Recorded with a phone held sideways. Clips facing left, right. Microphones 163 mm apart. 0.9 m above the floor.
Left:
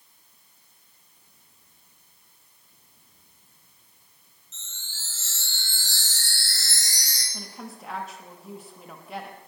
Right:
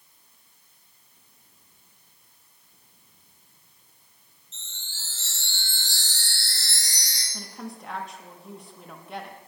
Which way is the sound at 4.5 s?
30° right (ahead or behind).